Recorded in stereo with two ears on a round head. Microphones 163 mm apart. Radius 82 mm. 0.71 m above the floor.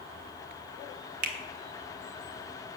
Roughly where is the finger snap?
Right.